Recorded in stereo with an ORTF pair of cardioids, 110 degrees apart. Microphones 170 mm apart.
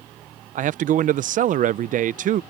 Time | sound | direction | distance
0.6 | a man speaking | 50° right | ?